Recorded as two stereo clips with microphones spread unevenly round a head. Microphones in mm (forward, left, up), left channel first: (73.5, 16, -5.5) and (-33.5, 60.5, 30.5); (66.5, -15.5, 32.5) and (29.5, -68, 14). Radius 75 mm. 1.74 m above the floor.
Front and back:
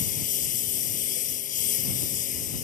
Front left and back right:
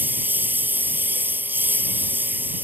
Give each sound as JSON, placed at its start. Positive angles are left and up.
{"t": 0.0, "sound": "a lawn mower", "azimuth_deg": -65}